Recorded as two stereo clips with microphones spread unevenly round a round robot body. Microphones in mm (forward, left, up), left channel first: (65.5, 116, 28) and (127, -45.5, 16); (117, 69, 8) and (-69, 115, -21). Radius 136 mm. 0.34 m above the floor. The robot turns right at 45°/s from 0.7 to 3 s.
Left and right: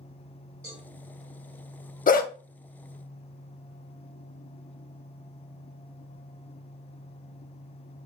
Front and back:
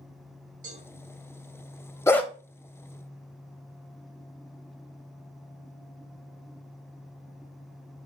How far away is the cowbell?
About 1.6 m.